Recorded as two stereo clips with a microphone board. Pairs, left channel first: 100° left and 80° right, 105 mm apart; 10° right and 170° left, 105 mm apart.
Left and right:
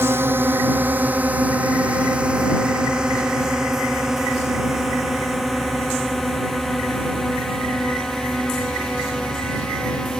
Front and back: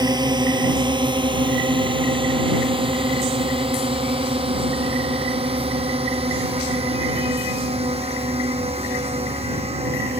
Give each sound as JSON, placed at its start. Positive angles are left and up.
{"t": 0.0, "sound": "a drone", "azimuth_deg": -145}